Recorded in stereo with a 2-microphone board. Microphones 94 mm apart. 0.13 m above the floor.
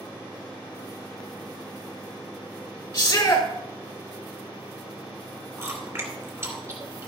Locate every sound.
2.9 s a shout: 30° left (ahead or behind), 1.7 m
5.6 s chewing: 30° right (ahead or behind), 2.5 m